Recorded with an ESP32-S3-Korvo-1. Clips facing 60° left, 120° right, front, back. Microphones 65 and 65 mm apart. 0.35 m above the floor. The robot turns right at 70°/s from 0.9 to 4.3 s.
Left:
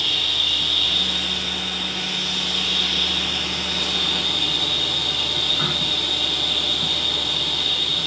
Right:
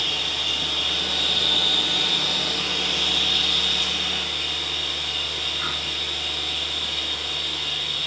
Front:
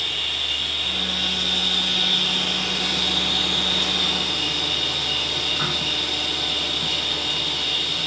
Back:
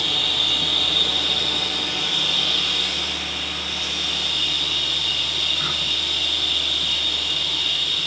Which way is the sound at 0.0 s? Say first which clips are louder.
Left 2 dB, back 3 dB; 175° left.